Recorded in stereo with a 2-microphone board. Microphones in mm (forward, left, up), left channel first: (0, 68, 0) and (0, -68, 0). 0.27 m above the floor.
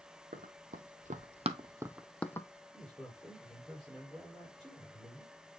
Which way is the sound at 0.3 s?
80° right.